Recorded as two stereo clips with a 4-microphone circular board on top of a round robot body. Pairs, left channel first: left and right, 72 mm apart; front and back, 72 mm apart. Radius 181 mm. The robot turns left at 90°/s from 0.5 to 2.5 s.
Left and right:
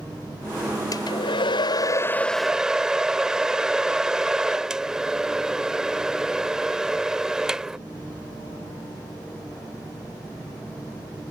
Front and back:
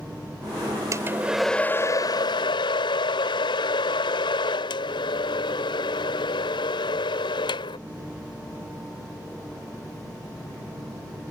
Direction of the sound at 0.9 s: 135° left.